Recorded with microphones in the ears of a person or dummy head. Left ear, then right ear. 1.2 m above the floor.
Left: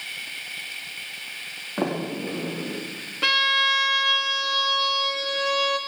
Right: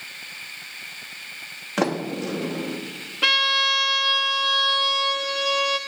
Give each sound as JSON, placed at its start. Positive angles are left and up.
{"t": 1.8, "sound": "a sliding door", "side_deg": -80, "distance_m": 2.0}
{"t": 3.2, "sound": "a violin", "side_deg": -5, "distance_m": 0.9}